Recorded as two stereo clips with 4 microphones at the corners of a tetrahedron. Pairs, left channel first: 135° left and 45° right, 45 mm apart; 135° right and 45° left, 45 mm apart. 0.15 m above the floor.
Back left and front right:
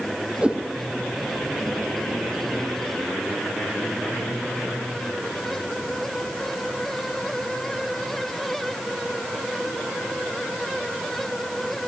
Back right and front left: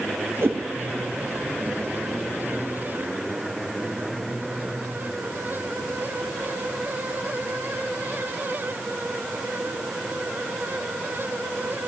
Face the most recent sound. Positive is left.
turn(degrees=20)